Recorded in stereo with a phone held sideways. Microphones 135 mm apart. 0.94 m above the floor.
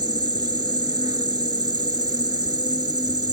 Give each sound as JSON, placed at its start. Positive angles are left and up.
{"t": 0.0, "sound": "an insect", "side_deg": -30}